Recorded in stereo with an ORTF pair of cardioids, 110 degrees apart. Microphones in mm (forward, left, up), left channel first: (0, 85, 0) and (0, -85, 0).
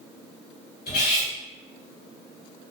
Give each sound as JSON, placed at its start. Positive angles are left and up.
{"t": 0.9, "sound": "cutlery clinking", "azimuth_deg": 70, "distance_m": 1.4}